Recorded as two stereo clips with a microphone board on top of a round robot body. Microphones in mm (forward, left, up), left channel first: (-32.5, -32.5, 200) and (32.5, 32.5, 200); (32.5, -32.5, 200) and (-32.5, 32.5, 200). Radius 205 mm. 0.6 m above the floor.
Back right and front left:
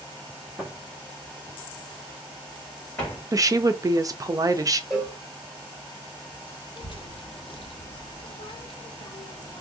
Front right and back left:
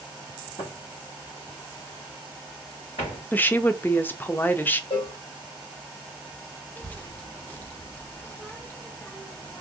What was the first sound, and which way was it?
Footsteps, 30° right.